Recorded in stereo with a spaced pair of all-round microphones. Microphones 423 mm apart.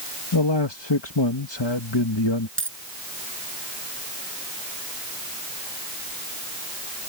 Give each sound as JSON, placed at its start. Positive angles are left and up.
{"t": 0.3, "sound": "a man speaking", "side_deg": 80}
{"t": 2.6, "sound": "a dropped coin", "side_deg": -30}